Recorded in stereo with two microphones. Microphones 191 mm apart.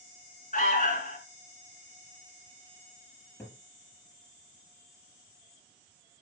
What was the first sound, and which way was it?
An alarm, 45° left (ahead or behind).